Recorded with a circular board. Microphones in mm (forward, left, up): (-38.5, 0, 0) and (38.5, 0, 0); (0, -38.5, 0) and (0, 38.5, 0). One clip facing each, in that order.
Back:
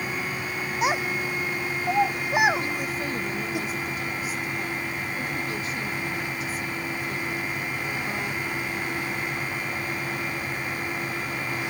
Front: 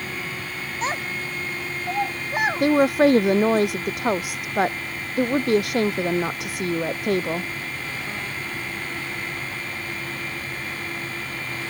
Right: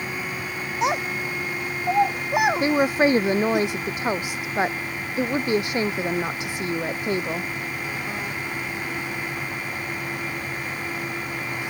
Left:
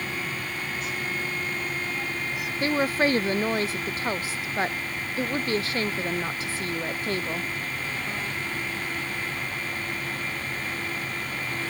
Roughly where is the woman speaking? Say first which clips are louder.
Front 13 dB, right 4 dB; ahead.